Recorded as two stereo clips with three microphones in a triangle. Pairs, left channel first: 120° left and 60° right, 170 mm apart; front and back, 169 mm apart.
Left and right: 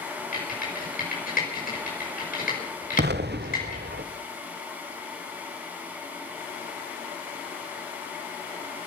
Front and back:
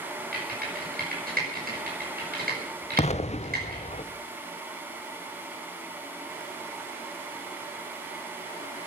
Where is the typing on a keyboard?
150° left, 5.5 m.